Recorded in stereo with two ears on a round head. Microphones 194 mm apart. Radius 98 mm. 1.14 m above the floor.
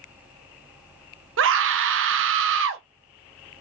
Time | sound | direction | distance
1.4 | a scream | 55° right (ahead or behind) | 0.6 m